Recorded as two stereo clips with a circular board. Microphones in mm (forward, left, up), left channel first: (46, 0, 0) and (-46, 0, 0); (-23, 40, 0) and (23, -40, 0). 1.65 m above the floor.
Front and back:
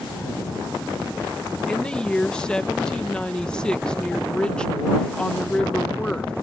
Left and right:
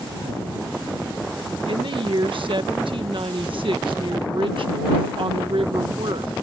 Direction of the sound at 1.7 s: 80° right.